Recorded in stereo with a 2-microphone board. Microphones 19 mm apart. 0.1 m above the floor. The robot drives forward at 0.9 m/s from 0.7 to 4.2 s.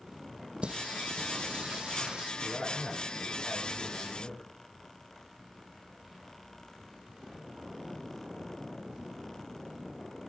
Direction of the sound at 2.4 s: 65° left (ahead or behind).